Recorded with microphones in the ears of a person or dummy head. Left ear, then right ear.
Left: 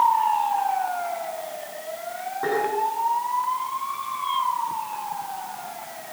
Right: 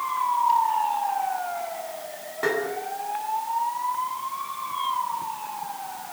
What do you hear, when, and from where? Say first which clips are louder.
2.4 s tapping: even; 65° right (ahead or behind), 9.5 m